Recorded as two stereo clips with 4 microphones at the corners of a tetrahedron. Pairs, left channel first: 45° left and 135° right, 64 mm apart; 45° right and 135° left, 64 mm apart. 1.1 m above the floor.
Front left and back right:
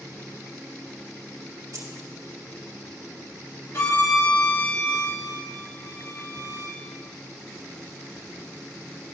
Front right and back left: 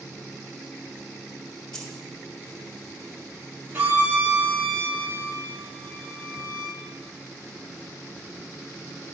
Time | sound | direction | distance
1.7 | keys jangling | 125° right | 1.5 m
3.7 | a violin | 80° left | 2 m